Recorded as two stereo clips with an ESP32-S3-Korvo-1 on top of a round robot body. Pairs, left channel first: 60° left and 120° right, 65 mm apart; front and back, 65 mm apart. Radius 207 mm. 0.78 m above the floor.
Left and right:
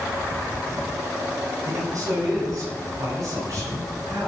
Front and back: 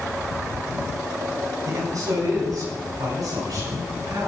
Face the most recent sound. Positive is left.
turn(degrees=-160)